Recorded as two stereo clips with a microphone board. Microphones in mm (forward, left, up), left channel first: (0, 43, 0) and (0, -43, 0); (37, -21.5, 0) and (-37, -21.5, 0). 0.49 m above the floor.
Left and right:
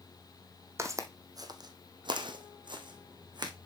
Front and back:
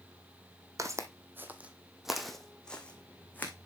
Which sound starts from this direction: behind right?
Footsteps, at 0.8 s.